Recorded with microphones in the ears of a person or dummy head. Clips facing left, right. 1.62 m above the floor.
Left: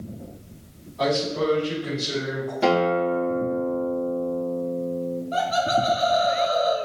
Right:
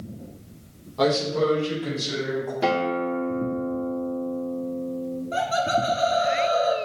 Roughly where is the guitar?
Centre.